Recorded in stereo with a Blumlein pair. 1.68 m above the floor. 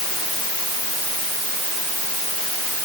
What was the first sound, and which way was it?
Only background noise.